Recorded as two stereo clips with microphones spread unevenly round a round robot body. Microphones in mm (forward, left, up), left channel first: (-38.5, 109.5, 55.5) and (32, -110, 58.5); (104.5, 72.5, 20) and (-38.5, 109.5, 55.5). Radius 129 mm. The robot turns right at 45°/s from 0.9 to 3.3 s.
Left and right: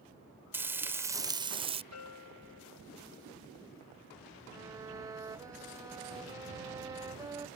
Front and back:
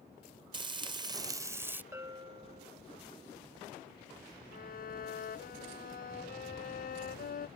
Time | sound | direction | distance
0.5 | frying | 145° right | ?
1.9 | a bell | 90° left | ?
4.5 | a violin | 5° left | ?